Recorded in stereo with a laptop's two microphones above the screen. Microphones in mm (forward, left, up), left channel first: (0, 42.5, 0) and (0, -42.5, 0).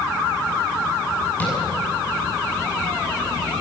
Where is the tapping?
20° left (ahead or behind), 8 m.